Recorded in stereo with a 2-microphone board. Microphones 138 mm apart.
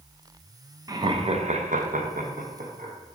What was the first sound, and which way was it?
Laughter, 25° right (ahead or behind).